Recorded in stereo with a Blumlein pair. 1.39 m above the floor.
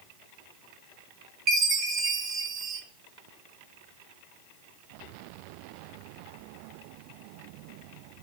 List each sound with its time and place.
1.5 s a chime: 30° right, 2.0 m